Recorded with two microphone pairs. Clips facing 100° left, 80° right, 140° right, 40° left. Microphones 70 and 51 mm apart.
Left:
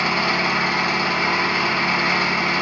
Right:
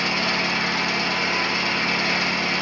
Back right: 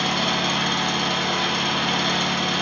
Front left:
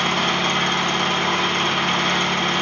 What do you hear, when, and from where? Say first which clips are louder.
0.0 s an engine running: left 4 dB, front left 3 dB; 85° left, 1.7 m